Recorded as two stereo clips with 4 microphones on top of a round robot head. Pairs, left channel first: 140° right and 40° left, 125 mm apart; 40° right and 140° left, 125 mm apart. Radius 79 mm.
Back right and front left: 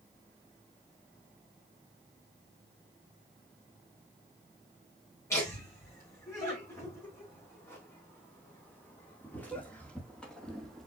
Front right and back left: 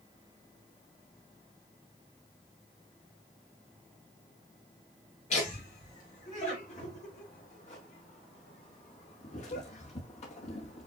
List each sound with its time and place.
5.3 s laughter: 70° right, 4.5 m; by 10.9 s 50° right, 1.5 m